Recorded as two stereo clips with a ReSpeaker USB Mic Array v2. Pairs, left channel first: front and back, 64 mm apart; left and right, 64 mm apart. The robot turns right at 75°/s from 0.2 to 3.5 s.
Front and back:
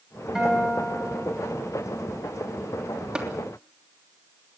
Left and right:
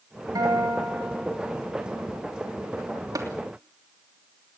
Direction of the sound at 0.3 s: 100° right.